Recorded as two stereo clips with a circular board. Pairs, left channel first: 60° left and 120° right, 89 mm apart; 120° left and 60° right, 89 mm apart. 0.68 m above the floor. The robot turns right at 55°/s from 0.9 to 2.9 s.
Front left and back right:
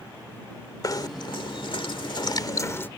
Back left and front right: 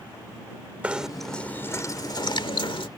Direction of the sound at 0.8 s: 15° left.